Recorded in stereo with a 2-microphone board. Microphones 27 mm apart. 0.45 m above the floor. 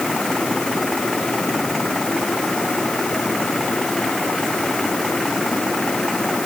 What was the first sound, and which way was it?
Only background noise.